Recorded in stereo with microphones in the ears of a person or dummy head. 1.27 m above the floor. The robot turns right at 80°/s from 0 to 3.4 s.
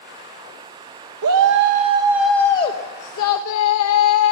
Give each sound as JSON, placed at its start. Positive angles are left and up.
{"t": 1.2, "sound": "a shout", "azimuth_deg": -85, "distance_m": 1.1}